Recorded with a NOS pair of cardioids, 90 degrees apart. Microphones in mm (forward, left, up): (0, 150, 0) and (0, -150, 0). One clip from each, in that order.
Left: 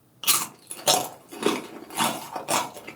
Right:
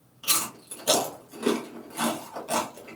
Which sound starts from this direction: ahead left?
Chewing, at 0.2 s.